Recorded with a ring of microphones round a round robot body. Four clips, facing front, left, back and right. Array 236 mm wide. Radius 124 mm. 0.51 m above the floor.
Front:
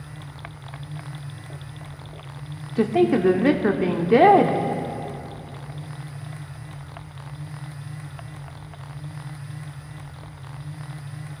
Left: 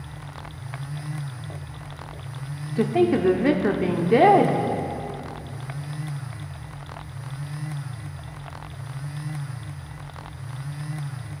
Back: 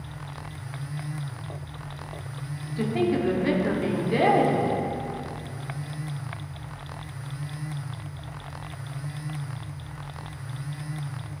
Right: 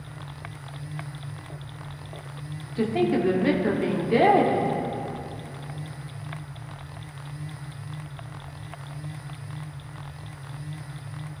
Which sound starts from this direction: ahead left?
A woman speaking, at 2.8 s.